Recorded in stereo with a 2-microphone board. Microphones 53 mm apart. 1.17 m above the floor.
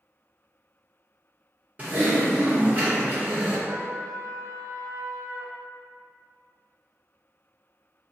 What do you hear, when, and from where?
1.8 s typing on a keyboard: 35° right (ahead or behind), 1.2 m
3.7 s a trumpet: 55° right (ahead or behind), 0.7 m